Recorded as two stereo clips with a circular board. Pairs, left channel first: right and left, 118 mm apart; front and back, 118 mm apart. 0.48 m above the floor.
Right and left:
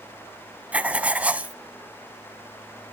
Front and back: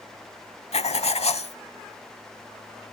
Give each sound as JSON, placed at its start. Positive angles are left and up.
{"t": 0.7, "sound": "writing", "azimuth_deg": 15, "distance_m": 0.7}